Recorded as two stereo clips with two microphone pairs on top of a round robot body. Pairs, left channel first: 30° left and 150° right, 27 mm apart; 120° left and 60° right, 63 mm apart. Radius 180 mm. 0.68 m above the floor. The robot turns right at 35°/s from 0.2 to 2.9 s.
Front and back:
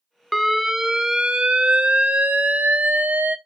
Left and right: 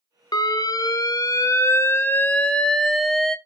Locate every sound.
0.3 s an alarm: 120° left, 1.1 m; by 3.4 s 150° right, 1.1 m